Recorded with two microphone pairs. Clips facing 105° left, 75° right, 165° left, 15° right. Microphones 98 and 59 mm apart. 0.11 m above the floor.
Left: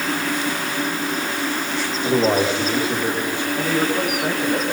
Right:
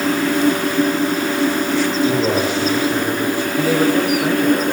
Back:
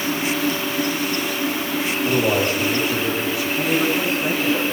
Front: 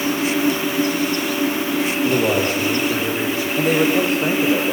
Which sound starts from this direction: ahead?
A man speaking, at 3.6 s.